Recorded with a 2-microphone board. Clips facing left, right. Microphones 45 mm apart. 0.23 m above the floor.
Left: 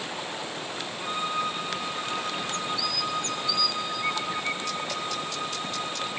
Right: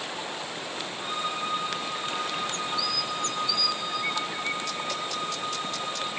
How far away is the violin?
About 3.5 m.